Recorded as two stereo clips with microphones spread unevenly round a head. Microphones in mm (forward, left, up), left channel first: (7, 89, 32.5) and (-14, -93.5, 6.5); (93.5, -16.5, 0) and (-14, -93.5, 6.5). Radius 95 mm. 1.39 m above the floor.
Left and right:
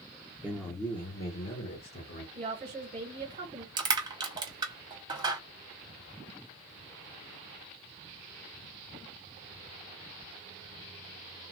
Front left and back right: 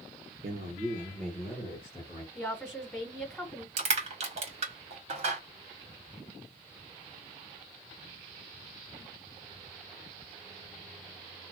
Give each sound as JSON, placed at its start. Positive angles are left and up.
{"t": 0.4, "sound": "a man speaking", "azimuth_deg": -175, "distance_m": 0.7}
{"t": 2.4, "sound": "a woman speaking", "azimuth_deg": -45, "distance_m": 1.3}
{"t": 3.8, "sound": "crushing", "azimuth_deg": -165, "distance_m": 1.2}